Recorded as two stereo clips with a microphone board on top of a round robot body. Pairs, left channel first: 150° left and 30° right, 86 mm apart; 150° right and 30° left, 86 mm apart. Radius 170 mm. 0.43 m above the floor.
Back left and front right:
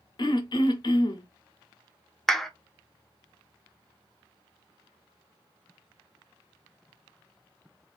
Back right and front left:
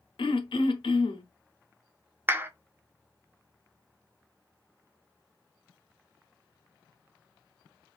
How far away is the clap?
About 0.7 m.